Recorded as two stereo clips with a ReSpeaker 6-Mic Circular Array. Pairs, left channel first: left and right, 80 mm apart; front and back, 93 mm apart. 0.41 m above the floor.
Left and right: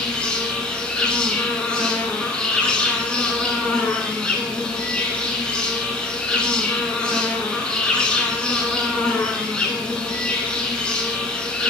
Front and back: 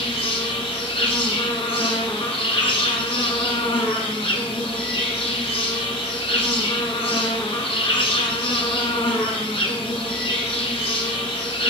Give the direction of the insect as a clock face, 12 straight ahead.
12 o'clock.